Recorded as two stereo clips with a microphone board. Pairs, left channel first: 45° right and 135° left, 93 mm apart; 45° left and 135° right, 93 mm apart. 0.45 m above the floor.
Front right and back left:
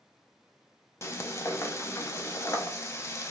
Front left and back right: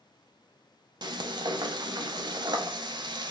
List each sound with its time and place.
1.0 s frying: 105° right, 0.5 m